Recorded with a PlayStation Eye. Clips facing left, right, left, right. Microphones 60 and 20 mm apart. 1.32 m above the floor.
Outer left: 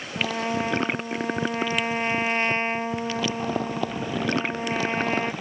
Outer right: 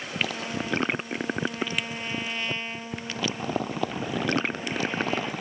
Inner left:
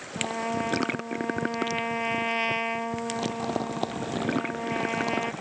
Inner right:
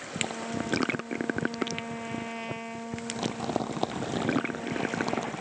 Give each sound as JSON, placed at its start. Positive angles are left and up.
{"t": 0.2, "sound": "a trumpet", "side_deg": 45}